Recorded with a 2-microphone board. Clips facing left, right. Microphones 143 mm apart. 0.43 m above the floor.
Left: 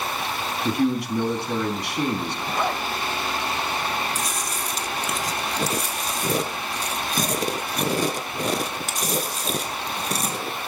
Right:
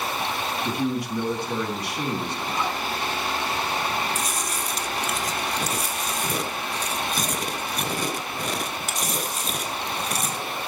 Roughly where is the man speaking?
Left.